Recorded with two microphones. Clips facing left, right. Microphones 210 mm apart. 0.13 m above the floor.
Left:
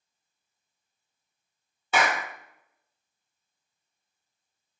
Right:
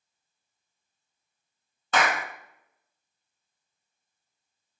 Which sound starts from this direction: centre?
A clap, at 1.9 s.